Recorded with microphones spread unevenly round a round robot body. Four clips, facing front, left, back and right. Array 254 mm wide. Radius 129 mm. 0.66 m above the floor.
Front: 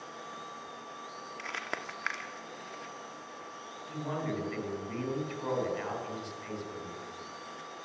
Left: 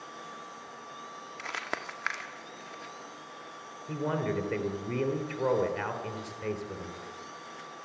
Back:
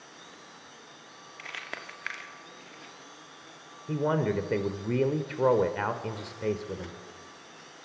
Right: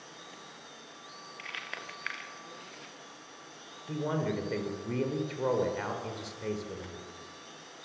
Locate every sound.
1.4 s crumpling: 75° left, 1.9 m
3.9 s a man speaking: 175° left, 3.5 m